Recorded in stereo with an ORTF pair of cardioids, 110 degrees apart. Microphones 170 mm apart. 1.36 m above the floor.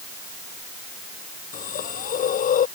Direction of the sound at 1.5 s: 50° left.